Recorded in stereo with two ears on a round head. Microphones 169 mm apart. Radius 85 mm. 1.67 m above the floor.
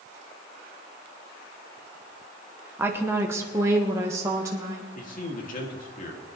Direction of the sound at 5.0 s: 50° left (ahead or behind).